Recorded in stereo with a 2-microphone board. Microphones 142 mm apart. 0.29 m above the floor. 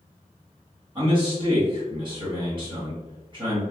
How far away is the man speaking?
About 1.6 m.